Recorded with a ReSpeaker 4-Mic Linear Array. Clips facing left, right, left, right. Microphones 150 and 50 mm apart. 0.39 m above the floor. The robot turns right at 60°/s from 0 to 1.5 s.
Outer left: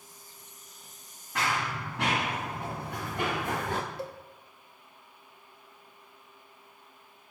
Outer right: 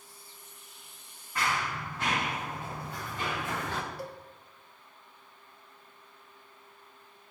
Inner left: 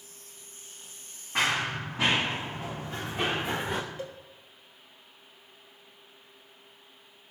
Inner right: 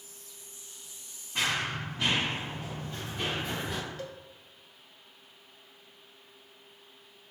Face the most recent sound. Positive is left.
turn(degrees=20)  # may be behind; listen again after turning